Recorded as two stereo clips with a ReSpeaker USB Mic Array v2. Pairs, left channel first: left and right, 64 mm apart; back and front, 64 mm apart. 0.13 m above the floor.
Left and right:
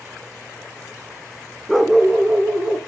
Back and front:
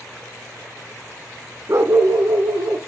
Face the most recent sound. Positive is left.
turn(degrees=-25)